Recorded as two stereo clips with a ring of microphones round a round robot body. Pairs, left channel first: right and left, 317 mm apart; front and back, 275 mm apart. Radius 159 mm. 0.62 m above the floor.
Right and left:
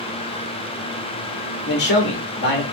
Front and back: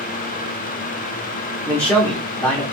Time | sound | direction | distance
1.7 | a man speaking | 80° right | 0.9 m